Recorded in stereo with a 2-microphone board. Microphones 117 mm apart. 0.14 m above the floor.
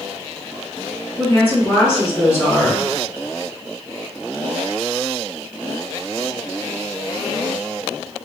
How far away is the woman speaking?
About 1.5 m.